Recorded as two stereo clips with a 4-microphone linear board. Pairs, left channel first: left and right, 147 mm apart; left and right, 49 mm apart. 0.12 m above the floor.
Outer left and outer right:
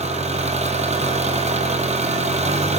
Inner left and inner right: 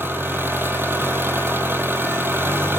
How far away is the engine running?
About 2.5 m.